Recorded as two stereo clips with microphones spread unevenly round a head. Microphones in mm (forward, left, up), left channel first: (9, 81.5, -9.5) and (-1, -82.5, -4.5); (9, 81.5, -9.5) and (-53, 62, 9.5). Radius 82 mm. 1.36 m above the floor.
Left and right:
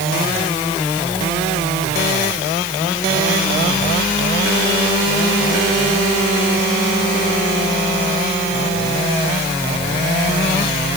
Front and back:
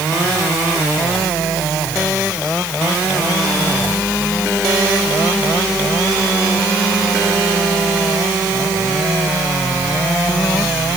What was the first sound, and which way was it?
Only background noise.